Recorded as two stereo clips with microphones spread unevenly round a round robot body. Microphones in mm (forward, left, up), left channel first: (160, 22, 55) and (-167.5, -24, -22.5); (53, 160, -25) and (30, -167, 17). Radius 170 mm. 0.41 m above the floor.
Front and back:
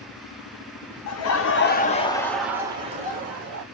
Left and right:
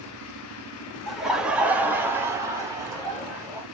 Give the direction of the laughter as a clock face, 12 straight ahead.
12 o'clock.